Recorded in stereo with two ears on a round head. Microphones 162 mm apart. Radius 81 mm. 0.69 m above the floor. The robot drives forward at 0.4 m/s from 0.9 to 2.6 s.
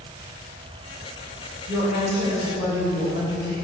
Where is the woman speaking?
25° right (ahead or behind), 3.5 m.